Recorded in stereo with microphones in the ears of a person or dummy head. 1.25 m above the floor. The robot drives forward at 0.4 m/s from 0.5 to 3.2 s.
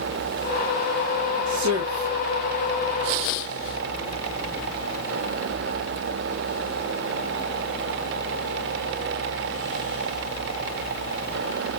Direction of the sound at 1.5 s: 70° right (ahead or behind).